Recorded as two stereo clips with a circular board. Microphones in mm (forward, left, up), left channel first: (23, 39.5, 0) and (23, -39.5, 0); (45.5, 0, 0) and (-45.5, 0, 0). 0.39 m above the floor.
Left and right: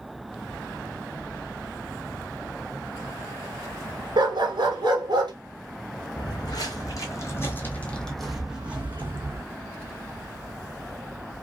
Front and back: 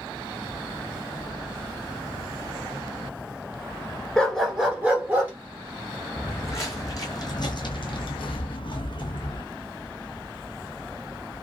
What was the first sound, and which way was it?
A dog barking, 85° right.